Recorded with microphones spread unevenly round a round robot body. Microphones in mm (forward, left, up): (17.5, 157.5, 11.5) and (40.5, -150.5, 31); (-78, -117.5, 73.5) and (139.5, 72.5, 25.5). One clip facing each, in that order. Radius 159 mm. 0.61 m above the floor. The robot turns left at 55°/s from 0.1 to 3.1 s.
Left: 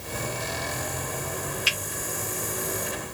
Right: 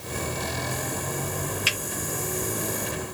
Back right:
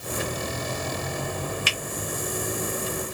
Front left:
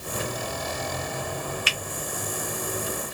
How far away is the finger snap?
About 1.2 m.